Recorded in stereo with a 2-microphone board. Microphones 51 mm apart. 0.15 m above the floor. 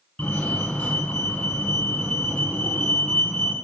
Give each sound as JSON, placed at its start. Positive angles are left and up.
{"t": 0.2, "sound": "a fire alarm", "side_deg": 25, "distance_m": 2.5}